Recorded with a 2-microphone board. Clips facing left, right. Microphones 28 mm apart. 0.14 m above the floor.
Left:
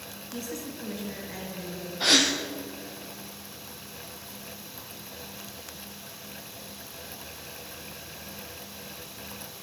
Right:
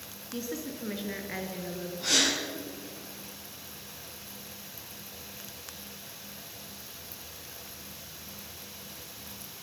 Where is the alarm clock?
No alarm clock in this recording.